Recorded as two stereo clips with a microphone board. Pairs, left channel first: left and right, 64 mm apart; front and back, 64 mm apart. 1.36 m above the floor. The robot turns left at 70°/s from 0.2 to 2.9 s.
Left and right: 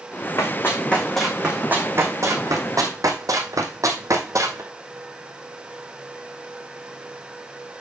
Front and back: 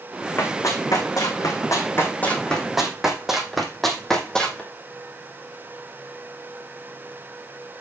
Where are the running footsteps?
55° left, 4 m; by 4.6 s 70° right, 2.5 m.